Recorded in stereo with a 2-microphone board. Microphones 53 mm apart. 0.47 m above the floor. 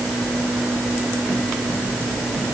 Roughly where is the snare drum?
I don't hear a snare drum.